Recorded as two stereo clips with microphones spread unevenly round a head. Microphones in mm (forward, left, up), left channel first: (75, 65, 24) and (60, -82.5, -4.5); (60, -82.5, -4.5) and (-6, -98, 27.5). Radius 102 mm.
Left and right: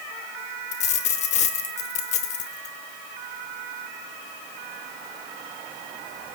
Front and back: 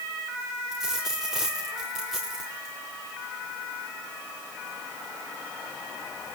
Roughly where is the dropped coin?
Behind left.